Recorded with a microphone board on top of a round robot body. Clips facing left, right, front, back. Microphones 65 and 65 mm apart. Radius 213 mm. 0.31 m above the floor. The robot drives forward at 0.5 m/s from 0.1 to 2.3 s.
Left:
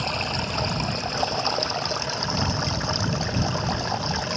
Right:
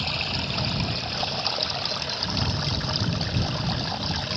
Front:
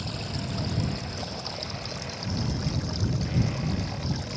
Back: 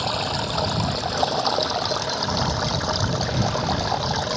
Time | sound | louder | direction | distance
0.0 | running water | left 3 dB, back 10 dB | 160° left | ?